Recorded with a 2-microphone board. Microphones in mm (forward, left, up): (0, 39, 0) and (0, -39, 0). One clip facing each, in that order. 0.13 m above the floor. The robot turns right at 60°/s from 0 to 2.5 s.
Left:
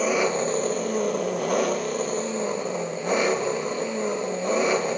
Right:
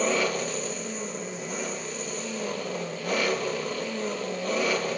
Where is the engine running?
5° left, 0.9 m; by 5.0 s 155° left, 0.9 m.